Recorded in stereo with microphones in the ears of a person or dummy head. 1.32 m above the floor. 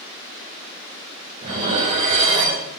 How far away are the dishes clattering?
About 4.5 m.